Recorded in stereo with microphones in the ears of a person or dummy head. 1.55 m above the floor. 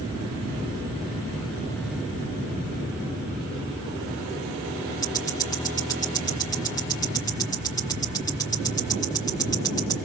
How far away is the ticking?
About 2.5 m.